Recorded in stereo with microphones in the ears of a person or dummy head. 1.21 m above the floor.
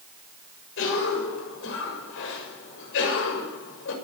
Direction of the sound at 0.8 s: 80° left.